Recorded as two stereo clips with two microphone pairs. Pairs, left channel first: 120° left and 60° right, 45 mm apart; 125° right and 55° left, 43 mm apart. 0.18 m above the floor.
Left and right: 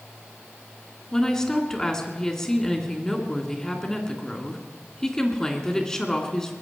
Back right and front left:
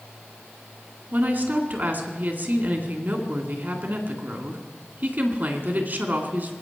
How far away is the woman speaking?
About 2 m.